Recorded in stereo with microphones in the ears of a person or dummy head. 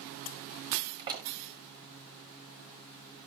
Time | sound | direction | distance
1.0 | a door slam | 20° right (ahead or behind) | 1.2 m